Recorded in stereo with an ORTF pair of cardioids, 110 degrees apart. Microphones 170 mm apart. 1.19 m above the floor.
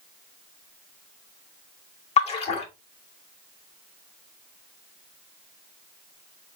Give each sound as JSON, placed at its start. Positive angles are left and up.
{"t": 2.2, "sound": "a splash", "azimuth_deg": 40, "distance_m": 1.6}